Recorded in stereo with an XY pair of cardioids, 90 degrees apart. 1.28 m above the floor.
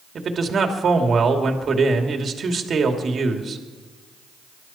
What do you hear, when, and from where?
0.1 s a man speaking: 50° right, 2.5 m